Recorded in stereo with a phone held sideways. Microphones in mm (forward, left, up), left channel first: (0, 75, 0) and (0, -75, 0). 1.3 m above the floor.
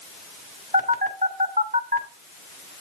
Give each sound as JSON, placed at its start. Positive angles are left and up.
{"t": 0.7, "sound": "a phone buzzing", "side_deg": -65, "distance_m": 1.3}